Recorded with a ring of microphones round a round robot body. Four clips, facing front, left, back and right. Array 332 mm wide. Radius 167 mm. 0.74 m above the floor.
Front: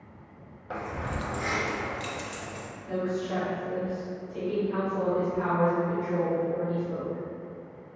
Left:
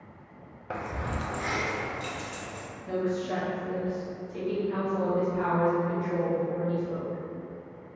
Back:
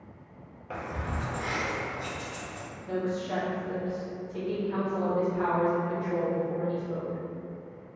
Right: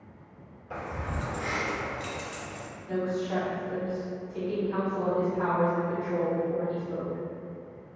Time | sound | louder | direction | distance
0.7 | keys jangling | left 2 dB, front 1 dB | 80° left | 0.5 m
2.9 | a woman speaking | left 1 dB, front 1 dB | 90° left | 1.5 m